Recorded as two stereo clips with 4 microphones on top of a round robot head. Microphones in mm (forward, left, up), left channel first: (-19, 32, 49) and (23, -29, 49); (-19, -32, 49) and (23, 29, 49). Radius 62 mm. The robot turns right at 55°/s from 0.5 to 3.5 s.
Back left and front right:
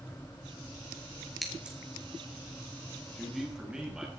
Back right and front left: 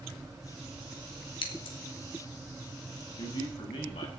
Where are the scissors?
145° right, 3 m; by 1.8 s 125° right, 3 m.